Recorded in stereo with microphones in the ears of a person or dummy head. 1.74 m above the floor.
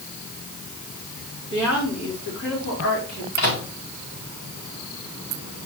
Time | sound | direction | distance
1.5 | a woman speaking | 85° left | 4.5 m
3.4 | a microwave | 60° left (ahead or behind) | 2 m